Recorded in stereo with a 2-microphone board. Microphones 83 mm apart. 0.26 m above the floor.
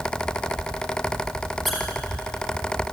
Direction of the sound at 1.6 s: Centre (ahead or behind).